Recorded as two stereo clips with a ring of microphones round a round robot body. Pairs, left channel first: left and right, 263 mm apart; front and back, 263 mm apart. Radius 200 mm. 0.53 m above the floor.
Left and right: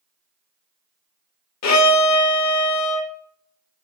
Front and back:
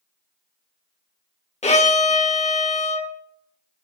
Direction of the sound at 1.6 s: 65° left.